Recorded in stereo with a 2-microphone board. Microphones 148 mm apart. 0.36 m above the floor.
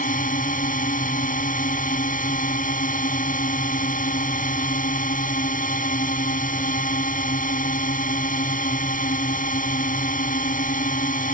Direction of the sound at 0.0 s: 65° left (ahead or behind).